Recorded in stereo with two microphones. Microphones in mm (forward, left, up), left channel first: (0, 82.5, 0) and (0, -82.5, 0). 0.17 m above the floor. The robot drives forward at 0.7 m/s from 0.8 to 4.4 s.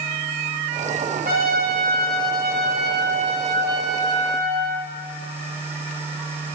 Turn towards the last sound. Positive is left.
turn(degrees=-80)